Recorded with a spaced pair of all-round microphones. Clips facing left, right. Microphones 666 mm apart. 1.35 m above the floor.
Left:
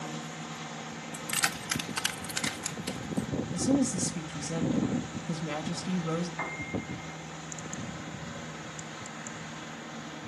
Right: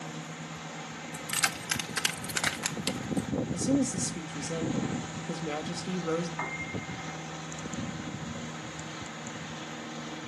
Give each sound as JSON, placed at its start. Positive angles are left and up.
{"t": 1.1, "sound": "keys jangling", "side_deg": 15, "distance_m": 0.8}
{"t": 3.5, "sound": "a woman speaking", "side_deg": 25, "distance_m": 1.3}
{"t": 6.4, "sound": "a piano", "side_deg": 0, "distance_m": 2.0}